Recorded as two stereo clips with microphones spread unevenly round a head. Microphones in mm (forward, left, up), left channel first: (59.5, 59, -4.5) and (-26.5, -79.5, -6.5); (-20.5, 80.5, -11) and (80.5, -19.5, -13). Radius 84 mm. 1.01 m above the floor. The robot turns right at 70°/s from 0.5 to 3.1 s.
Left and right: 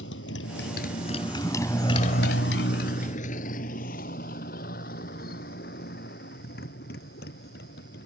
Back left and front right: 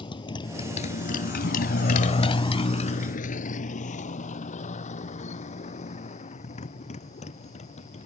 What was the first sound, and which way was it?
A motorcycle, 80° left.